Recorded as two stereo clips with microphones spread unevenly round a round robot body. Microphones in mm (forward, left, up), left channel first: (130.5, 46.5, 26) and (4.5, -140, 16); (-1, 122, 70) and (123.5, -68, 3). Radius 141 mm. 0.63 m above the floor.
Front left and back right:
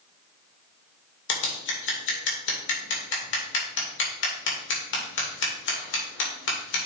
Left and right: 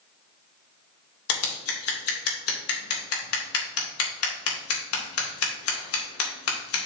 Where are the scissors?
100° left, 2.5 m.